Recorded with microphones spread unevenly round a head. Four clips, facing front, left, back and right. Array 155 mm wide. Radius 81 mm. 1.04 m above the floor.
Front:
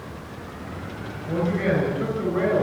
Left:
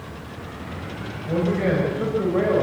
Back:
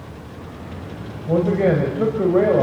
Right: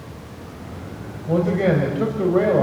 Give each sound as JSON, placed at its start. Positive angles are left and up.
{"t": 1.3, "sound": "a man speaking", "azimuth_deg": -155, "distance_m": 4.5}